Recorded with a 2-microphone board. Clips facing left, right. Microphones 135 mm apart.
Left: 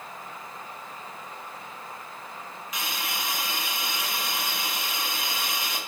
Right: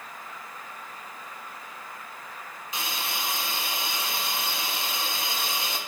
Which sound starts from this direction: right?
A hiss, at 2.7 s.